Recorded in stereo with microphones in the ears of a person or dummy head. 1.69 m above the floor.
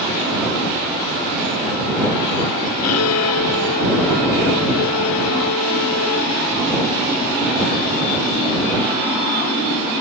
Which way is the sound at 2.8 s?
80° left.